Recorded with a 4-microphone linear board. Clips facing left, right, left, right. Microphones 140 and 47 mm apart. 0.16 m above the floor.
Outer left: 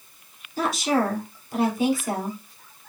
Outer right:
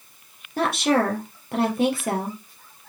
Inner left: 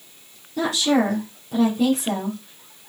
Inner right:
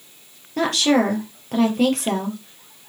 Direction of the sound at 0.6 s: 55° right (ahead or behind).